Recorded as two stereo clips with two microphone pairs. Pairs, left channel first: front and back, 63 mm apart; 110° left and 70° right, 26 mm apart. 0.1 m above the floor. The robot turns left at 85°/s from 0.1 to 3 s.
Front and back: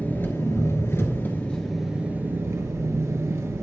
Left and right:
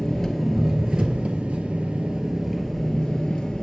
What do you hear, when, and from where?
0.0 s an engine running: 55° left, 1.2 m; by 3.6 s 165° left, 1.2 m